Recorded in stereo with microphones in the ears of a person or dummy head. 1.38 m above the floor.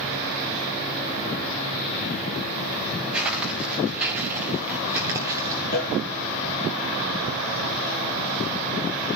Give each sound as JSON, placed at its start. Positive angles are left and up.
{"t": 3.1, "sound": "footsteps", "side_deg": -5, "distance_m": 9.5}
{"t": 5.7, "sound": "a cowbell", "side_deg": 60, "distance_m": 5.5}